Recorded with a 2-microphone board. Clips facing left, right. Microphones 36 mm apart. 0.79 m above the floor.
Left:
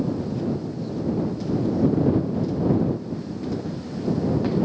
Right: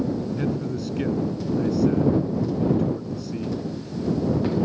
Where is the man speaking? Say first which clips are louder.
Right 1 dB; 85° right.